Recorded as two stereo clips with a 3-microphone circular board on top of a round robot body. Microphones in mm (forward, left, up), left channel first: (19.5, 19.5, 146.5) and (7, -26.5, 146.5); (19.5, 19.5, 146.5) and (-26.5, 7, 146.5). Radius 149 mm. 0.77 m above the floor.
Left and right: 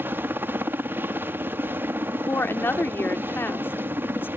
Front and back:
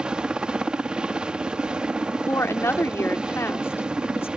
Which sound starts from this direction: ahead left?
A woman speaking, at 2.1 s.